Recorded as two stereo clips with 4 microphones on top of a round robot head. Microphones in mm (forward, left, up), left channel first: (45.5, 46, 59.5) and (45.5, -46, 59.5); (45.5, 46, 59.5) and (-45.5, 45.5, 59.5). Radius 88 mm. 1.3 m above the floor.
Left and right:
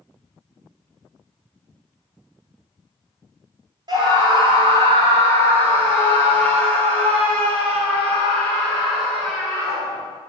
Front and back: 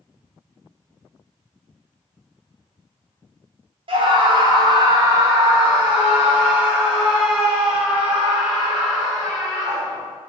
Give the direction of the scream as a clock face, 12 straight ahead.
5 o'clock.